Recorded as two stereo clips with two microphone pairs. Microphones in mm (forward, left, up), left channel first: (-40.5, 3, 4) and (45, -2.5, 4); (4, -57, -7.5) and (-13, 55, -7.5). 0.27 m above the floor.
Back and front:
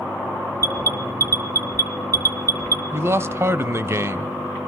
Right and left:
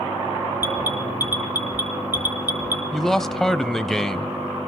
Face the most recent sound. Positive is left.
turn(degrees=0)